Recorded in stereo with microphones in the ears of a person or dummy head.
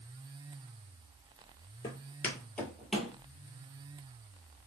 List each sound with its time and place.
1.8 s footsteps: 20° left (ahead or behind), 1.7 m; by 3.1 s centre (ahead or behind), 1.8 m